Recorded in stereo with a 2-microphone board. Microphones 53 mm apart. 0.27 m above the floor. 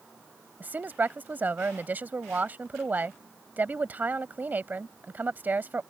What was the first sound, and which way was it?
A woman speaking, 35° right (ahead or behind).